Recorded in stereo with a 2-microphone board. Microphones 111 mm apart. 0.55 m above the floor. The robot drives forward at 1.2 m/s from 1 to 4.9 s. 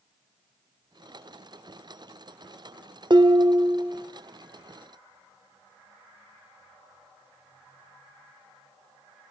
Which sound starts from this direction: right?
Dishes clattering, at 3.1 s.